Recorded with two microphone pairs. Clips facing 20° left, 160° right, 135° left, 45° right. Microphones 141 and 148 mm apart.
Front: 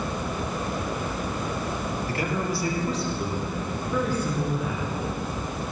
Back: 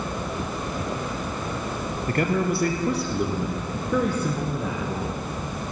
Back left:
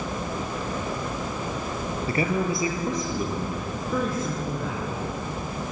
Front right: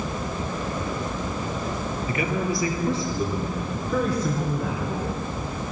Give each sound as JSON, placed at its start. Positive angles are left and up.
{"t": 2.1, "sound": "a man speaking", "azimuth_deg": 180, "distance_m": 2.5}